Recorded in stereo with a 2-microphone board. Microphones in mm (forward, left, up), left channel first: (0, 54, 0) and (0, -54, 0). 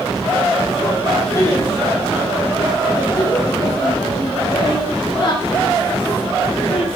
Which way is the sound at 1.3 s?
25° left (ahead or behind).